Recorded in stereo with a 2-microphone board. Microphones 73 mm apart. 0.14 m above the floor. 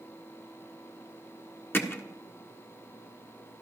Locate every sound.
1.7 s hammering: 30° left (ahead or behind), 1.5 m